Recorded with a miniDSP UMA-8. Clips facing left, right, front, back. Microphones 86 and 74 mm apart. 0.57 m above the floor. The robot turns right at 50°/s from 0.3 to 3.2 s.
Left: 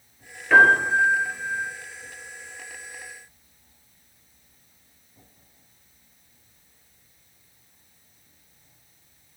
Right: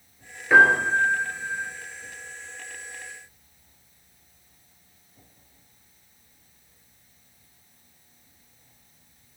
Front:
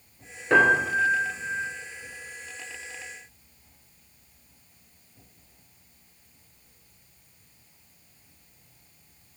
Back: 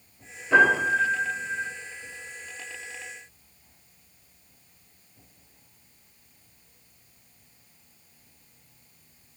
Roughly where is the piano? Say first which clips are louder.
Left 1 dB, even; ahead.